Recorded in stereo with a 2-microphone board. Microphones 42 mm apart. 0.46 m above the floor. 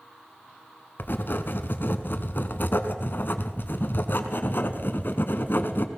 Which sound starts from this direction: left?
Writing, at 1.0 s.